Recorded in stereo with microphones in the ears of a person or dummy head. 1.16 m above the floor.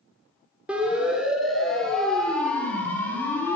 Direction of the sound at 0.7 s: 5° right (ahead or behind).